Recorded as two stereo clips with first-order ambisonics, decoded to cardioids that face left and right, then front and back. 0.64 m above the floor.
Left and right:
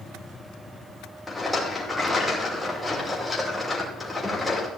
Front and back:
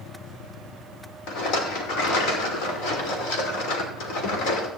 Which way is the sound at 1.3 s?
10° left.